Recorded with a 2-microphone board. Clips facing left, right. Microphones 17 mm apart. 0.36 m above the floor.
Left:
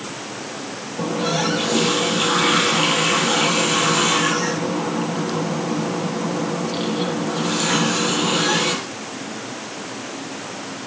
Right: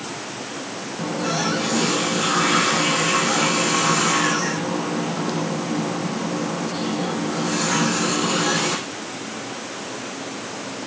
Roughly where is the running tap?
Left.